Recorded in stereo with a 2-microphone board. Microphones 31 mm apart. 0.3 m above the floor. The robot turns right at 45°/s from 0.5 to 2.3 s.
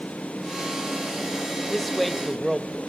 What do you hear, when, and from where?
1.7 s a man speaking: centre (ahead or behind), 0.9 m; by 2.8 s 5° right (ahead or behind), 0.9 m